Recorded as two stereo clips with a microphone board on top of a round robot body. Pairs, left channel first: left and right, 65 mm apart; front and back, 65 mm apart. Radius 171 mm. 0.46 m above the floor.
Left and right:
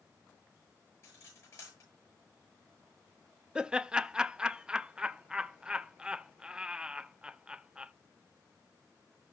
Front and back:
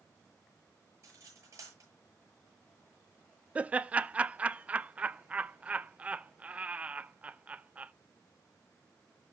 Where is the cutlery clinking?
135° left, 7.5 m.